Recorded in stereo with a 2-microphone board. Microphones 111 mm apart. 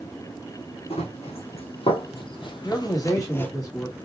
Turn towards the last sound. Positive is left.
turn(degrees=35)  # may be behind; listen again after turning